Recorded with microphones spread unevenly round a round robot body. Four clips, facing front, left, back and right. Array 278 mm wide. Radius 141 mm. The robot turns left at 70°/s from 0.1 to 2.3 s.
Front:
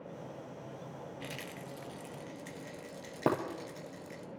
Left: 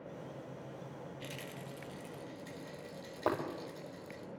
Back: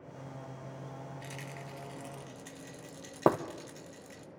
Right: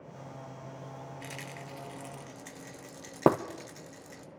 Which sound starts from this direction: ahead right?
A rattle, at 1.2 s.